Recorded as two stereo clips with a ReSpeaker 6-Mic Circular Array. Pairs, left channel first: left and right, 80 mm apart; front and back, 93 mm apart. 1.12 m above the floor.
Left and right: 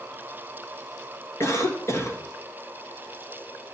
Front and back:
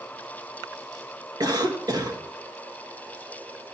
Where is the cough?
140° left, 1.6 m.